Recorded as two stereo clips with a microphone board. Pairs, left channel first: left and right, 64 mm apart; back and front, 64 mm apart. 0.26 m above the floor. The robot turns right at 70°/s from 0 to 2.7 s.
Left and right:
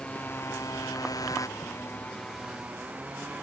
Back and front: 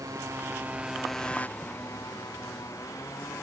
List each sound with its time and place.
0.0 s a motorcycle: 15° left; by 3.4 s 155° right